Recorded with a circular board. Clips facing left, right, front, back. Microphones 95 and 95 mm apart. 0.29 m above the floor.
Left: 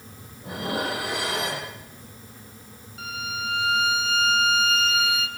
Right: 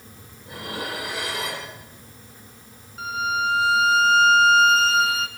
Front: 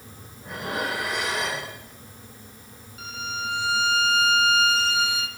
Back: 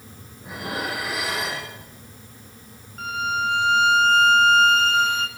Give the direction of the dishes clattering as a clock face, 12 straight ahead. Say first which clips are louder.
Left 4 dB, even; 9 o'clock.